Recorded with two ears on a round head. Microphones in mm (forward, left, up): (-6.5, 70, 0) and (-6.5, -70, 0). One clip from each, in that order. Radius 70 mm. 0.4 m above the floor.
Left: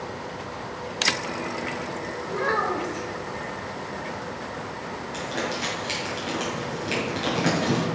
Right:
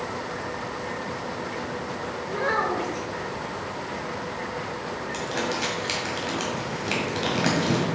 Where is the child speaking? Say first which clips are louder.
Even; centre (ahead or behind), 0.9 m.